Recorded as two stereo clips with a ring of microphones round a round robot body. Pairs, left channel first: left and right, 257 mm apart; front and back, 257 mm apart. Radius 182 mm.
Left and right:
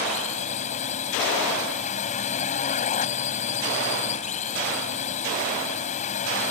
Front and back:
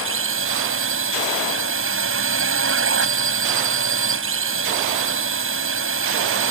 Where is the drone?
155° left.